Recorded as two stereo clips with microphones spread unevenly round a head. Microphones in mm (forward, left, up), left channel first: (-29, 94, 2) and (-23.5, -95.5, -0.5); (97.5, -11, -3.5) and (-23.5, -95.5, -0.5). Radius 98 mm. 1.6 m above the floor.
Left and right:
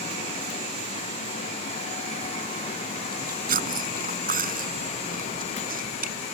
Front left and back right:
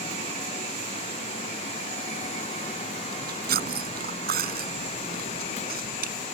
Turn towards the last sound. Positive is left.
turn(degrees=-135)